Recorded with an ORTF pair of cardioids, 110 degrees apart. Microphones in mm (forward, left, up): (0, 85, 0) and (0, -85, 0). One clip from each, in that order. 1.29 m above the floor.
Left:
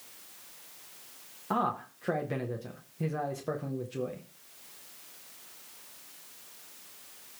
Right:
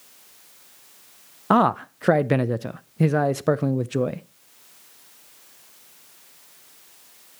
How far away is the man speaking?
About 0.5 m.